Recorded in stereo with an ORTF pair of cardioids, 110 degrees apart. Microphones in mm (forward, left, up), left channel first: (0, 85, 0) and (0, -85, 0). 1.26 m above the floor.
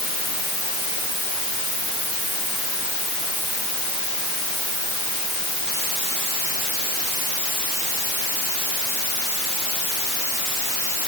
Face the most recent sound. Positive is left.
No sound to turn to.